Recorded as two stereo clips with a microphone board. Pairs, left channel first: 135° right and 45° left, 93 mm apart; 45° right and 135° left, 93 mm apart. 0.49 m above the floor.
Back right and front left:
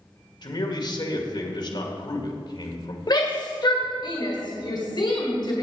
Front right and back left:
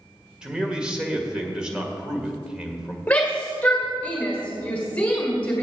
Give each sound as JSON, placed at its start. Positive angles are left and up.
{"t": 0.4, "sound": "a man speaking", "azimuth_deg": -145, "distance_m": 1.8}
{"t": 3.1, "sound": "a shout", "azimuth_deg": -115, "distance_m": 1.9}